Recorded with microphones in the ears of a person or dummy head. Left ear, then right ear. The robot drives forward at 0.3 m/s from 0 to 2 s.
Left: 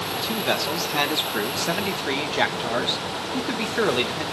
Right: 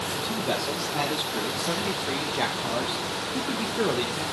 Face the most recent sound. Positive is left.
turn(degrees=50)  # may be behind; listen again after turning